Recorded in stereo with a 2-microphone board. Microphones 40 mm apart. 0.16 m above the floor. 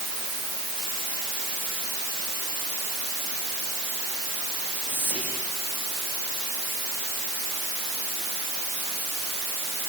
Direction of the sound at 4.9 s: 50° right (ahead or behind).